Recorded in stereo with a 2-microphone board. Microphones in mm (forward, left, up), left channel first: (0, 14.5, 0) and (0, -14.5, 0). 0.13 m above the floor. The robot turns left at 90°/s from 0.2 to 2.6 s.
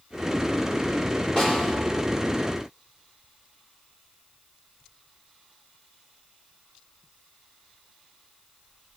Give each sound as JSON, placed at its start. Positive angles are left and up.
{"t": 1.4, "sound": "a snare drum", "azimuth_deg": 30, "distance_m": 5.0}